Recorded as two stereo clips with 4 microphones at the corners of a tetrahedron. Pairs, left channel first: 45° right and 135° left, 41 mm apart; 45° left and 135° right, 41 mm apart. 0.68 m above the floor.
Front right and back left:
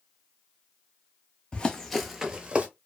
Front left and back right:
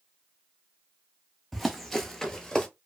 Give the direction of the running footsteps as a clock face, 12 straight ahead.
1 o'clock.